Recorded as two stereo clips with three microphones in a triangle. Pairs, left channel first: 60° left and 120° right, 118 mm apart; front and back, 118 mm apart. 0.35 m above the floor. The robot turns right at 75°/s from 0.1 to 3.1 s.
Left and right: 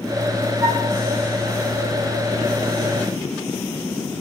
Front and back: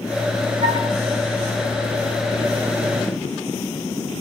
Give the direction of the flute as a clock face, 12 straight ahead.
6 o'clock.